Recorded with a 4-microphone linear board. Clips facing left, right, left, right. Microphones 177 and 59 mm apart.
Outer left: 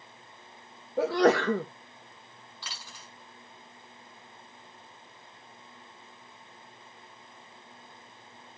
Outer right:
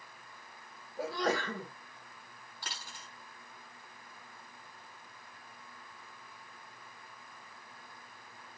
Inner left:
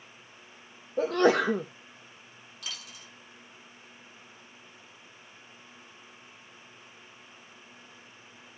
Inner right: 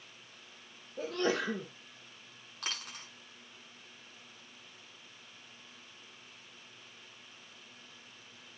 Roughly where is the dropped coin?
Right.